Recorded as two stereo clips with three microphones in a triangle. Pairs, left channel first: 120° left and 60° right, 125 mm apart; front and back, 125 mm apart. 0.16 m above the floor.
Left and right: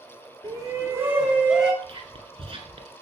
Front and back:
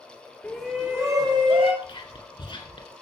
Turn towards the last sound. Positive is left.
turn(degrees=-35)